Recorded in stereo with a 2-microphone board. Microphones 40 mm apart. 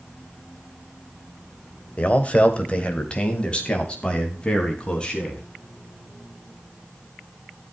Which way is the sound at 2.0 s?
35° left (ahead or behind).